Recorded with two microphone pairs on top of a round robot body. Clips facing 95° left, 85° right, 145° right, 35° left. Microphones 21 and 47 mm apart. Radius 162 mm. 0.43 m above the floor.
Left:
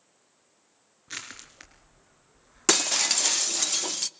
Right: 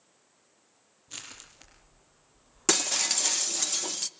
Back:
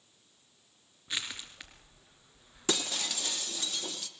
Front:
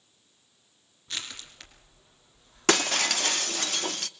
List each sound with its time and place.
1.1 s crushing: 135° left, 3 m
2.7 s breaking glass: 30° left, 0.8 m